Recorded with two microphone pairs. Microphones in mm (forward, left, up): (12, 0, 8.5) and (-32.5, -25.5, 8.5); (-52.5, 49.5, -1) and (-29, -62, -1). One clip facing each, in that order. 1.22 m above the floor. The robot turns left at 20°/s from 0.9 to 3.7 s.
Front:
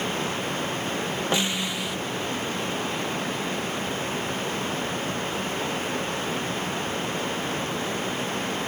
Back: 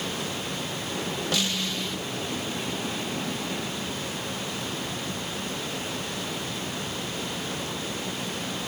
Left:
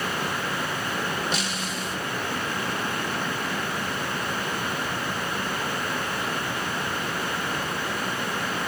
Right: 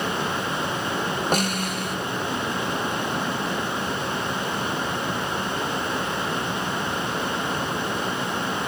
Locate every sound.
1.3 s a snare drum: 40° right, 0.6 m; by 2.0 s 50° right, 0.6 m